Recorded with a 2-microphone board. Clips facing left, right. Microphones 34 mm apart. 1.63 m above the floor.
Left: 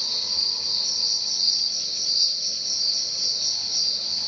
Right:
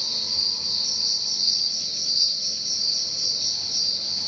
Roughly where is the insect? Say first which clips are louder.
Even; left.